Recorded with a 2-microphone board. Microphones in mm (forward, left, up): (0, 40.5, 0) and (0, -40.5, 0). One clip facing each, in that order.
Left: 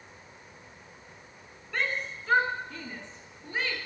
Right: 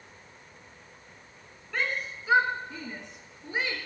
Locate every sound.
1.7 s a shout: centre (ahead or behind), 1.6 m; by 3.8 s 20° right (ahead or behind), 3 m